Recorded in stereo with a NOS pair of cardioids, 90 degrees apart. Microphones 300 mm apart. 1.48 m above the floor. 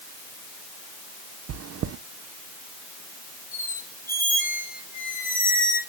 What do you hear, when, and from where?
1.5 s chewing: 55° right, 0.9 m
3.5 s a squeak: 30° left, 6.5 m